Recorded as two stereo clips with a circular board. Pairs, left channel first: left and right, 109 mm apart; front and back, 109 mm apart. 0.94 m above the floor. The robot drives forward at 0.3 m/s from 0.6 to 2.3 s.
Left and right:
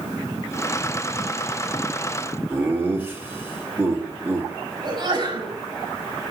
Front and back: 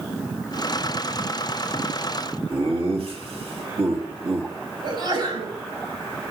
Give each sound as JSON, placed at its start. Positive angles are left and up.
{"t": 2.5, "sound": "laughter", "azimuth_deg": -160, "distance_m": 1.7}
{"t": 4.8, "sound": "a sneeze", "azimuth_deg": -135, "distance_m": 6.0}